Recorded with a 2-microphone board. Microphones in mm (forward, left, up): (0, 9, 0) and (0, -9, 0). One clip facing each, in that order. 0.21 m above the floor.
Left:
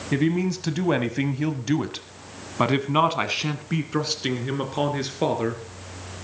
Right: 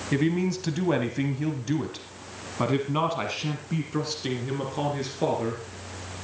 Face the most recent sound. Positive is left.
turn(degrees=20)  # may be behind; listen again after turning